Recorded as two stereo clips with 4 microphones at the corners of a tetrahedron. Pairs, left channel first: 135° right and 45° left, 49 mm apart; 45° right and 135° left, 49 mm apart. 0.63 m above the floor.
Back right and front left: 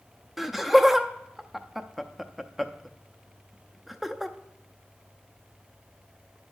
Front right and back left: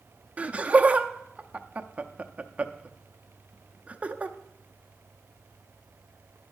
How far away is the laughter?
About 0.6 m.